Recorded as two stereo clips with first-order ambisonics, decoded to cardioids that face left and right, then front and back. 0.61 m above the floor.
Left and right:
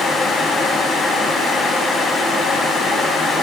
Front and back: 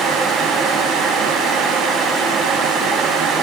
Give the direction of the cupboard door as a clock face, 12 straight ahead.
I don't hear a cupboard door.